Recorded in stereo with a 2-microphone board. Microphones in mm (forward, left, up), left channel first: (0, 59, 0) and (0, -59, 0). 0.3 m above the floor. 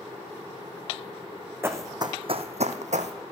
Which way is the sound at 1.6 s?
20° right (ahead or behind).